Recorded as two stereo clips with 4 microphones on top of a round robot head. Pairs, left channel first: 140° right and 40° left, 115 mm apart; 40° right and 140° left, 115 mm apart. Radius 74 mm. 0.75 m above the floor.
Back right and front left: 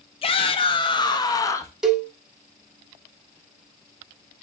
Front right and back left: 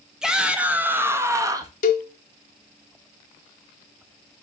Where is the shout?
135° right, 1.6 m; by 1.7 s 165° left, 1.3 m.